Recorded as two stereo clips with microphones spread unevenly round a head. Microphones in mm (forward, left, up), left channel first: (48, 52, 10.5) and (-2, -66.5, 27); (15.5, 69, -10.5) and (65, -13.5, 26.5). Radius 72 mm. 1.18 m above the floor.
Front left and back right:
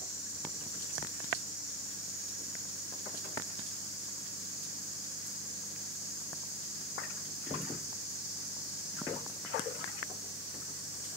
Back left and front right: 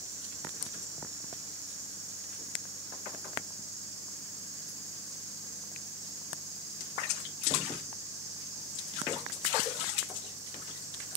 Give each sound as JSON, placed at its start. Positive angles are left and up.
{"t": 0.0, "sound": "an insect", "azimuth_deg": 0, "distance_m": 6.0}